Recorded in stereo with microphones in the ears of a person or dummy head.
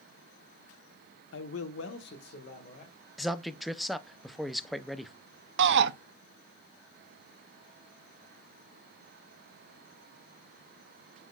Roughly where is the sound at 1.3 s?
Left.